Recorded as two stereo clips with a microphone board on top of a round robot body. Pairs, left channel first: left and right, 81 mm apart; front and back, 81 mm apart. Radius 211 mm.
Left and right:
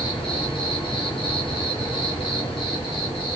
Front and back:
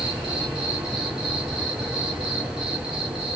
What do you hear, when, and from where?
0.0 s an insect: 100° left, 0.9 m